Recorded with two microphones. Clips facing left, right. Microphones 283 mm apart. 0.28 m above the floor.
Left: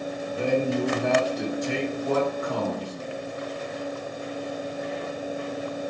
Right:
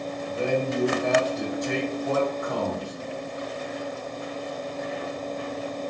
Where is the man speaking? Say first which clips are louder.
Left 2 dB; 25° right (ahead or behind), 1.6 m.